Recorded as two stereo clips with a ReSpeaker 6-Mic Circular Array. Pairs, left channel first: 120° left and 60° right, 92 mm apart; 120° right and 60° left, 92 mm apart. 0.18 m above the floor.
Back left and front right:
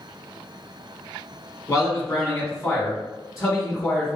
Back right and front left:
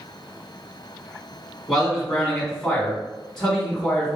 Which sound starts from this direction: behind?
A man speaking, at 1.7 s.